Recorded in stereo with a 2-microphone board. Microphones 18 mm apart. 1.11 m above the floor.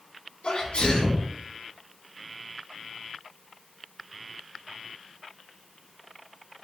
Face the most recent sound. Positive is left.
turn(degrees=75)  # may be behind; listen again after turning